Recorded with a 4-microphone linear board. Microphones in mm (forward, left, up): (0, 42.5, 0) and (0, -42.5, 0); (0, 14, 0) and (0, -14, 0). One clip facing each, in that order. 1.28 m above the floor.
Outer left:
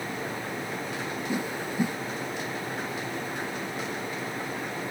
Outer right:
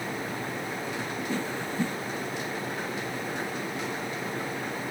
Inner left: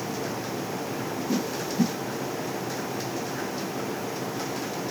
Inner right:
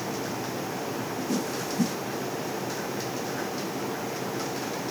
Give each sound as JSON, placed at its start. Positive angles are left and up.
{"t": 1.3, "sound": "a whoosh", "side_deg": 15, "distance_m": 0.9}